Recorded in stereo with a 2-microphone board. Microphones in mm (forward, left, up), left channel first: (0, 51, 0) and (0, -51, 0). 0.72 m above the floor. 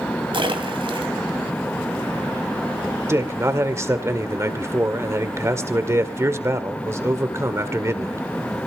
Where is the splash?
55° right (ahead or behind), 3 m.